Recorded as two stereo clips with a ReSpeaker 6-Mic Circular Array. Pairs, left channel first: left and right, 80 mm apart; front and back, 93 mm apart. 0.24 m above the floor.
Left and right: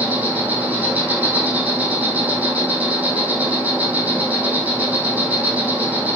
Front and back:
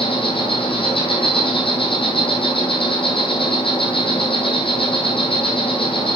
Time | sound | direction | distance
0.0 | an insect | 20° right | 4 m